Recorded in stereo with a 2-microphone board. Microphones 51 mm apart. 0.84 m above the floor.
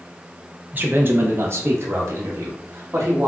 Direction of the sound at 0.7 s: 35° right (ahead or behind).